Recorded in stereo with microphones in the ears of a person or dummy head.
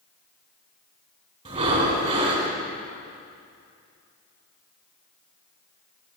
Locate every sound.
1.4 s breathing: 35° right (ahead or behind), 1.9 m